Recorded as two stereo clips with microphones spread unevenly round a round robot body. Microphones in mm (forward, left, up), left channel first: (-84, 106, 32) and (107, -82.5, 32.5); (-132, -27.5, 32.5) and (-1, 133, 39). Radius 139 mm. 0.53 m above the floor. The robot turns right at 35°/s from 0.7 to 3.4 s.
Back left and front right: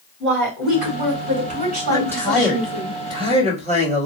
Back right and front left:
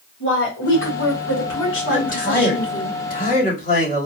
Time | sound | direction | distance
0.2 | a woman speaking | 135° right | 3 m
1.9 | a man speaking | 155° right | 1.6 m